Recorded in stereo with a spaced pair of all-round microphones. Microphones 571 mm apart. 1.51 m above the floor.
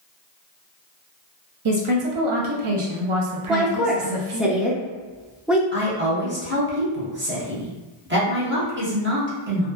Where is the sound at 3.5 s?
Centre (ahead or behind), 0.5 m.